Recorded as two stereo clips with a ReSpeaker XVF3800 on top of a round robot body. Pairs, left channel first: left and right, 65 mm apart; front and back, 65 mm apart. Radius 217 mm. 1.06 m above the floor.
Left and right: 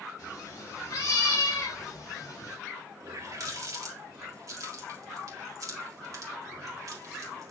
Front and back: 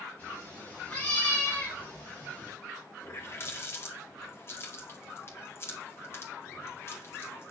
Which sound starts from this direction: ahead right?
A running tap, at 3.0 s.